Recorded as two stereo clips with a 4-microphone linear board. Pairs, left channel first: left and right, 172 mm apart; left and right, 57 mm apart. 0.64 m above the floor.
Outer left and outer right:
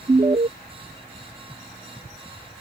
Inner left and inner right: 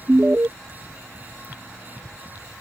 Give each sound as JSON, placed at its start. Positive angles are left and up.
{"t": 0.1, "sound": "an alarm", "side_deg": -35}